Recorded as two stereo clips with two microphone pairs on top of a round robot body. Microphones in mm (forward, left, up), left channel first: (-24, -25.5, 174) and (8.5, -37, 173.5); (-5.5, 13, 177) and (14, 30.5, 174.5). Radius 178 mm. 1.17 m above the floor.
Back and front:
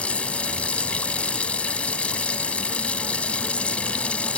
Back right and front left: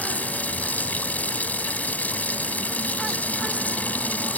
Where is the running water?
140° right.